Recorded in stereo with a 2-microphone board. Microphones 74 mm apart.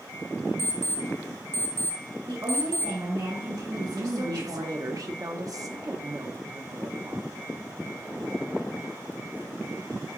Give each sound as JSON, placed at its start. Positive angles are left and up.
{"t": 0.6, "sound": "an alarm clock", "side_deg": 40, "distance_m": 1.2}
{"t": 2.3, "sound": "a woman speaking", "side_deg": -65, "distance_m": 2.5}
{"t": 3.7, "sound": "a woman speaking", "side_deg": -50, "distance_m": 0.7}